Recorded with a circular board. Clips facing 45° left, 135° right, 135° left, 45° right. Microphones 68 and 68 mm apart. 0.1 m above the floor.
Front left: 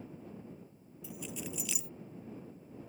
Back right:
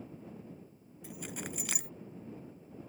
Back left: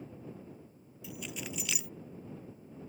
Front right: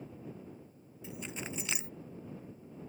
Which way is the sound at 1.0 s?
105° right.